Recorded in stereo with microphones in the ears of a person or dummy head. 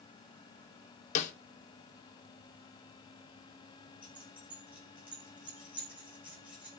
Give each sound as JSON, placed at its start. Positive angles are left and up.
{"t": 1.1, "sound": "a snare drum", "side_deg": 40, "distance_m": 1.1}
{"t": 4.0, "sound": "keys jangling", "side_deg": -5, "distance_m": 5.5}